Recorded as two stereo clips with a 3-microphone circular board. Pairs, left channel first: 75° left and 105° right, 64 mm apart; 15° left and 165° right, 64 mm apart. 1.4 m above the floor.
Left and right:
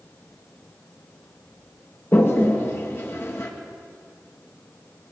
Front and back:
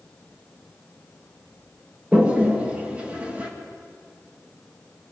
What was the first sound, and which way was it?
A toilet flushing, 125° left.